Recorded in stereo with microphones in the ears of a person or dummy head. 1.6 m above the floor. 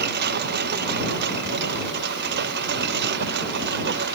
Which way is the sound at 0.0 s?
45° right (ahead or behind).